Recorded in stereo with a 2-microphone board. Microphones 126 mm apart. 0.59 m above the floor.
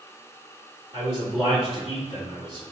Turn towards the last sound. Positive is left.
turn(degrees=-55)  # may be behind; listen again after turning